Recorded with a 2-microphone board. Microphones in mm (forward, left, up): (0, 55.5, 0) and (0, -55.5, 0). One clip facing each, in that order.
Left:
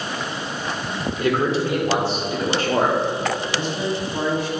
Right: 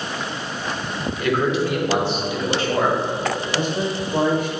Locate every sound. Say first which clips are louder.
1.2 s a man speaking: even; 30° left (ahead or behind), 2.5 m; by 3.0 s 50° left (ahead or behind), 2 m
3.5 s a man speaking: right 1 dB; 40° right (ahead or behind), 1.4 m